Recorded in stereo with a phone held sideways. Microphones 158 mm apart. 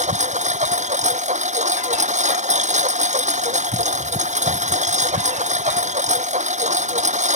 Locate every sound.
0.0 s a lawn mower: 50° right (ahead or behind)